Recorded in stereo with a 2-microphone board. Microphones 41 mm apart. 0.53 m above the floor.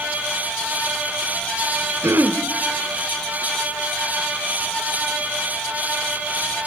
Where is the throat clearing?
65° right (ahead or behind), 0.8 m.